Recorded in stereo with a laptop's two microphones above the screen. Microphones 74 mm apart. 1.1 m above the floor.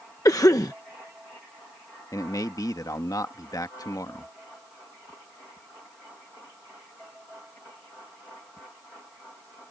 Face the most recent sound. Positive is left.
turn(degrees=55)  # may be behind; listen again after turning